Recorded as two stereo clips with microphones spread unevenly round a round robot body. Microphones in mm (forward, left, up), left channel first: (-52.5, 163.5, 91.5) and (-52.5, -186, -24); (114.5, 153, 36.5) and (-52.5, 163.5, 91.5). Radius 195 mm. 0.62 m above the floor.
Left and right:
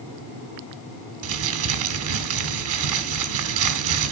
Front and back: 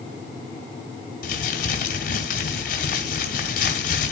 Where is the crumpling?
40° right, 2 m.